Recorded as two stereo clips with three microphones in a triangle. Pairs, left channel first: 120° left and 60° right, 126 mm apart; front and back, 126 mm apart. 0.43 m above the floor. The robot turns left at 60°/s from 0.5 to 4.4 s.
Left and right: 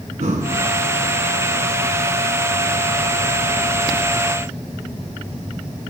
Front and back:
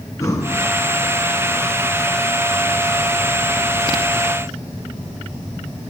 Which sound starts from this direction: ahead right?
Breathing, at 0.2 s.